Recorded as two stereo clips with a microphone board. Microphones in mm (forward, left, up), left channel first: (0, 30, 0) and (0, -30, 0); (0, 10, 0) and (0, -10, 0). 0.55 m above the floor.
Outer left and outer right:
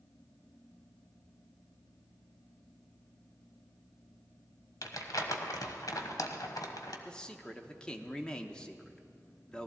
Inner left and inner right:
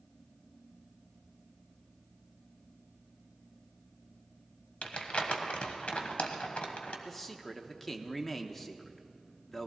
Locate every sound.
4.8 s crumpling: 80° left, 1.3 m
7.0 s a man speaking: 15° left (ahead or behind), 0.9 m